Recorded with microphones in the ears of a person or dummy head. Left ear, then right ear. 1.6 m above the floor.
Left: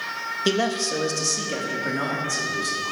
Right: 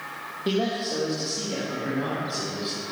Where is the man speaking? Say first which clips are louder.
Left 3 dB; 75° left (ahead or behind), 2 m; by 2.9 s 50° left (ahead or behind), 4.5 m.